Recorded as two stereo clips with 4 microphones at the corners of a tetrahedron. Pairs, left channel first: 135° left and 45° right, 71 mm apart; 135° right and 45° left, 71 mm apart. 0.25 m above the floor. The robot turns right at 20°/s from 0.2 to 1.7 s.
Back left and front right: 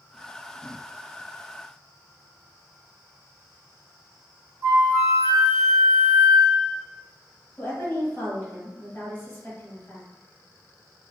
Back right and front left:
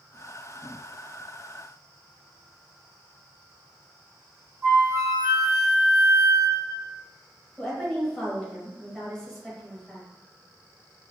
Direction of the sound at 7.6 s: 145° left.